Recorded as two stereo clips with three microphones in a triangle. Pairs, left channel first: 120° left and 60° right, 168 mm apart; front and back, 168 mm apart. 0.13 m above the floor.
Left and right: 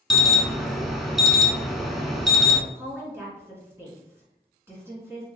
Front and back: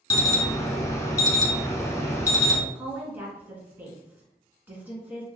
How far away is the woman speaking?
About 1.6 m.